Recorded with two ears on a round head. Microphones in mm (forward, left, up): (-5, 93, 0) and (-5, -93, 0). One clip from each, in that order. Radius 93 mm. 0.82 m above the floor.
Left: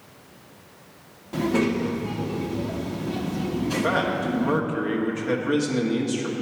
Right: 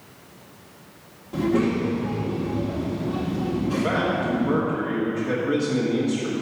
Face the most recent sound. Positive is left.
turn(degrees=30)  # may be behind; listen again after turning